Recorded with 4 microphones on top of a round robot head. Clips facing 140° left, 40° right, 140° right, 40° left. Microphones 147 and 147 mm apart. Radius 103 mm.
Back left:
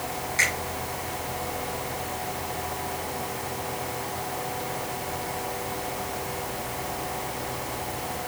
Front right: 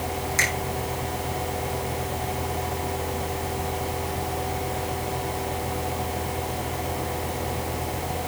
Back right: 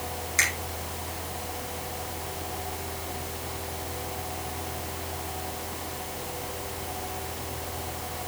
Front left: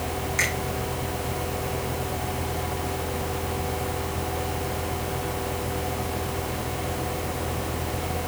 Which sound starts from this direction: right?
A finger snap, at 0.4 s.